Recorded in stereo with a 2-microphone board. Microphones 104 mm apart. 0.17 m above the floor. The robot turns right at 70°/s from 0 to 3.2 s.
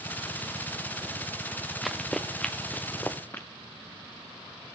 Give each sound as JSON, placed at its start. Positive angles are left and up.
{"t": 1.8, "sound": "running footsteps", "side_deg": 0, "distance_m": 0.8}